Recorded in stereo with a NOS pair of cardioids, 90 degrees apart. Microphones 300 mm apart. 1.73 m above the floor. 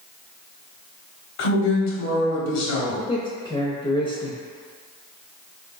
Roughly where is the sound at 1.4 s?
Ahead left.